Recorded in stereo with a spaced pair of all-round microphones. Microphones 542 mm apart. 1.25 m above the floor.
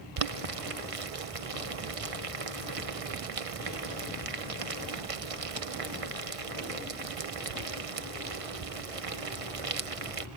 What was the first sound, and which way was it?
Boiling, 80° right.